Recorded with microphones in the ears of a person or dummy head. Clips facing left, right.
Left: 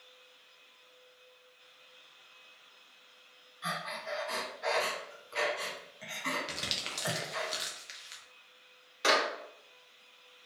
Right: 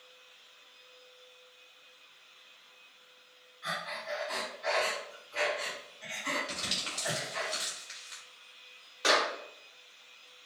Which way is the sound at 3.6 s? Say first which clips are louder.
Even; 60° left (ahead or behind).